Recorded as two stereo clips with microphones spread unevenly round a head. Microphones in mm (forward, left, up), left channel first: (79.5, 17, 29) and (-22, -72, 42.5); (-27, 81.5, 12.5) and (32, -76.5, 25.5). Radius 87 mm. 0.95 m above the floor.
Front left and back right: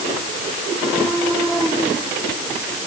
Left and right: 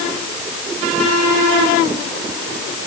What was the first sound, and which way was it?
Only background noise.